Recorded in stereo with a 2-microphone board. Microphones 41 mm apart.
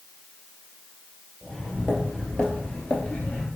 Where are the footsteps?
5° left (ahead or behind), 1.6 m; by 3.5 s 40° left (ahead or behind), 1.2 m.